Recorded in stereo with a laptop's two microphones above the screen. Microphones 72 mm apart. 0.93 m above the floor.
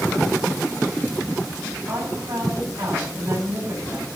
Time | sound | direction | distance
1.9 | a woman speaking | 50° right (ahead or behind) | 6 m